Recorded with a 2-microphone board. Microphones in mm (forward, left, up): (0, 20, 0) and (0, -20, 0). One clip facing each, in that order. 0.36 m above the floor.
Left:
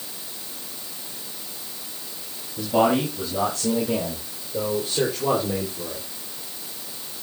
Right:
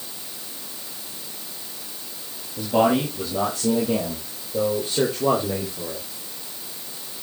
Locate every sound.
2.6 s a man speaking: 10° right (ahead or behind), 8 m; by 6.0 s 30° right (ahead or behind), 6.5 m